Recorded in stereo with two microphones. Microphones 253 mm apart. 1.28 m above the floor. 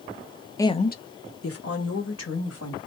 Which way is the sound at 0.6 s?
10° left (ahead or behind).